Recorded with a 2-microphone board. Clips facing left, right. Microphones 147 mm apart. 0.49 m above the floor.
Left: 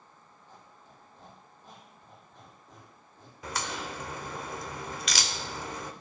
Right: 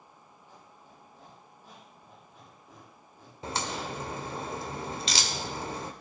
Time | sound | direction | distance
0.5 | a squeak | 10° right (ahead or behind) | 5 m
3.4 | a crack | 30° right (ahead or behind) | 0.9 m